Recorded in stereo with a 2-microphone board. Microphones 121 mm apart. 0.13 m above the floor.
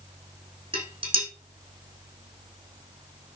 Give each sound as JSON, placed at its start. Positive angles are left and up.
{"t": 0.7, "sound": "dishes clattering", "side_deg": -45, "distance_m": 4.5}